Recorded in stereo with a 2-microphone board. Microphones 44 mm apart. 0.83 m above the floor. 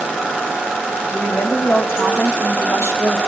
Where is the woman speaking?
65° left (ahead or behind), 5 m.